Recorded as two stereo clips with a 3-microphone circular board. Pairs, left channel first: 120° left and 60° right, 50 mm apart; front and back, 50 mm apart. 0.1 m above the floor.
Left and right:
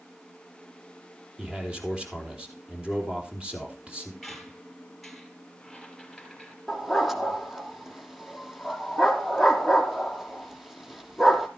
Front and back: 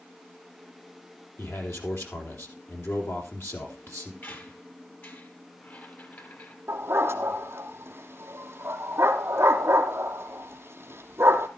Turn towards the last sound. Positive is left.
turn(degrees=-150)